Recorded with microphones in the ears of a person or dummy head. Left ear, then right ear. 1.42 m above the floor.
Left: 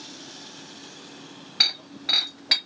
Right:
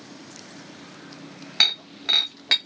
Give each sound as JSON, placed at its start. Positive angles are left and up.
{"t": 1.6, "sound": "breaking glass", "side_deg": -25, "distance_m": 1.0}